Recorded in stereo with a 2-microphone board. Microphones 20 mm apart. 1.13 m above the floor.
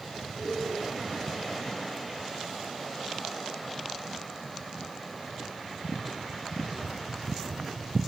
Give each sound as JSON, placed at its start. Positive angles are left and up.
{"t": 0.3, "sound": "laughter", "side_deg": 85, "distance_m": 5.5}